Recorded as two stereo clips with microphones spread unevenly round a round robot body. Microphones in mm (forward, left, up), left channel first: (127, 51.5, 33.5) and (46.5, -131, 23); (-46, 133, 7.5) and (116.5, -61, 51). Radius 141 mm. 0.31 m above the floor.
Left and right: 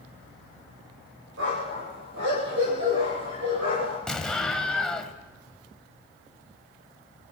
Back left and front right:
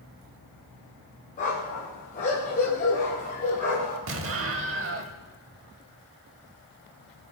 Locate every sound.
1.4 s a dog barking: 165° right, 5 m
4.1 s an explosion: 20° right, 1.7 m